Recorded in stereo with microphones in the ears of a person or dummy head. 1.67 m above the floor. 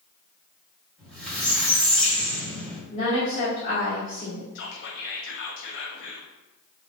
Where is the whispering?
60° left (ahead or behind), 0.5 m.